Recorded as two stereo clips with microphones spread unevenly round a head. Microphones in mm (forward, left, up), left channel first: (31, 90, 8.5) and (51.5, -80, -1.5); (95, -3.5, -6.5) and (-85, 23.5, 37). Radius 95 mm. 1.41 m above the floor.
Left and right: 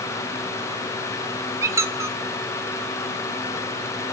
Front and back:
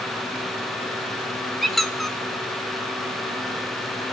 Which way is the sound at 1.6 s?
140° right.